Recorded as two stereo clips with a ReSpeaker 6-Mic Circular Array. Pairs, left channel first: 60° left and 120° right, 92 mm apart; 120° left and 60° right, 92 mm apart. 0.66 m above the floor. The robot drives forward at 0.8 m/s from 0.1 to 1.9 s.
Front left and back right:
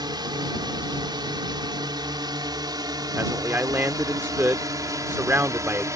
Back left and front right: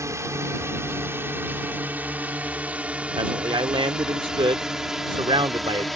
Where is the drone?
105° right; by 6.0 s 150° right.